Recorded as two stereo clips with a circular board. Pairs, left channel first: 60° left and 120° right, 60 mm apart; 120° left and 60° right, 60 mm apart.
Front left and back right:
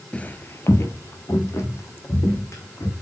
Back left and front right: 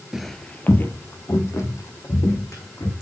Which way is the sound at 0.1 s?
15° left.